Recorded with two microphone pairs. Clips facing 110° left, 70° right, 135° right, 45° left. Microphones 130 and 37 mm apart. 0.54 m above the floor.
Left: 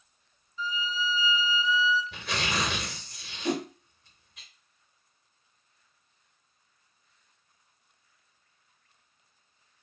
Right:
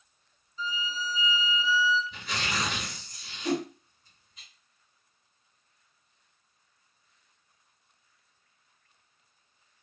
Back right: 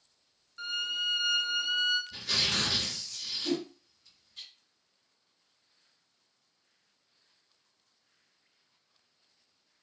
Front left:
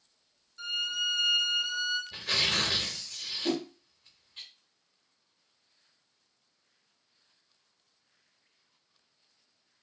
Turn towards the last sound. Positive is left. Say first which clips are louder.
# right 1 dB, front left 1 dB
turn(degrees=35)